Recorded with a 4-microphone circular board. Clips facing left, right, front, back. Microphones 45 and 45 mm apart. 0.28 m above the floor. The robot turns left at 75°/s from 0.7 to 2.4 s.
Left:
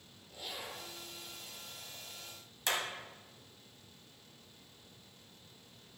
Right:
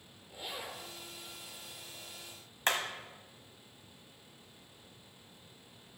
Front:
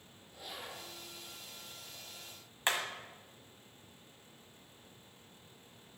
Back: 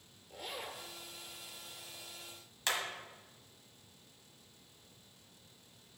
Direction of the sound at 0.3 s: 160° right.